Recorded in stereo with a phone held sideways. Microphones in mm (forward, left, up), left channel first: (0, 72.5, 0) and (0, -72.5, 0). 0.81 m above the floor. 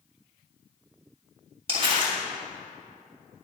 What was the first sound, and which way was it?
Crumpling, 40° right (ahead or behind).